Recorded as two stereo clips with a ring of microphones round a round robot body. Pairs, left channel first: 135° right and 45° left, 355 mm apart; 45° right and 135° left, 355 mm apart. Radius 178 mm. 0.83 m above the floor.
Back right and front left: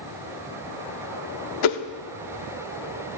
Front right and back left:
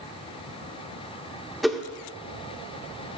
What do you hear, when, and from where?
1.6 s a whoosh: 135° right, 0.9 m